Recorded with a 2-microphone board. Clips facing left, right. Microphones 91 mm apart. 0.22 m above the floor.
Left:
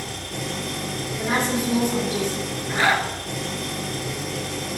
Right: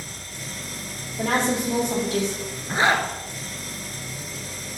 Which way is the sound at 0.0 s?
70° left (ahead or behind).